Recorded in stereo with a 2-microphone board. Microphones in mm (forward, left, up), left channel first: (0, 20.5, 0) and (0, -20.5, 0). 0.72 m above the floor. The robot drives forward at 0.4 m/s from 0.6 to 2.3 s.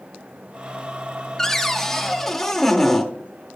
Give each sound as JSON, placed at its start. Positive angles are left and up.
{"t": 1.4, "sound": "a cupboard door", "side_deg": 10, "distance_m": 0.7}